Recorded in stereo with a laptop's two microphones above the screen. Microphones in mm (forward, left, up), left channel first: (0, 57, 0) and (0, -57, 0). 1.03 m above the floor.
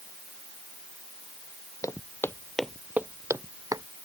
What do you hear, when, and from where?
1.8 s footsteps: 30° left (ahead or behind); by 3.9 s 30° right (ahead or behind)